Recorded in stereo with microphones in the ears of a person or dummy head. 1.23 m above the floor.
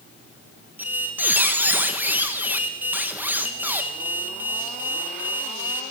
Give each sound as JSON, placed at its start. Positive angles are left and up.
{"t": 0.8, "sound": "a squeak", "side_deg": -15, "distance_m": 0.5}